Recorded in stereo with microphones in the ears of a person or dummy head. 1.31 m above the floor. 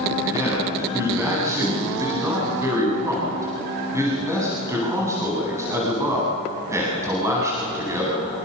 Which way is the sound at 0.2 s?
20° right (ahead or behind).